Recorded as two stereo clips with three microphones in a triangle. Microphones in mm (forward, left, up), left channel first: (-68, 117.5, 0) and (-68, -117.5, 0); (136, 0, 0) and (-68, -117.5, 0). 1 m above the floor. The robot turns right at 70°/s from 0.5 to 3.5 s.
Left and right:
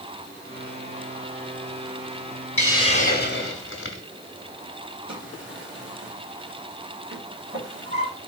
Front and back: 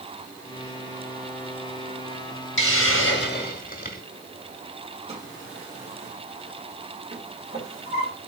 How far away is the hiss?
About 0.8 m.